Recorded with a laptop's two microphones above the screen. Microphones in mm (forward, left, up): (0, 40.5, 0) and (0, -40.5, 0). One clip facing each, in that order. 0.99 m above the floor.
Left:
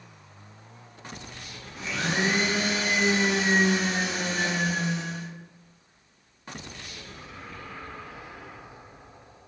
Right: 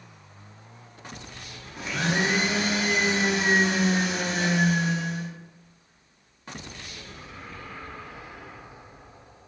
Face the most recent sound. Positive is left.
turn(degrees=-50)  # may be behind; listen again after turning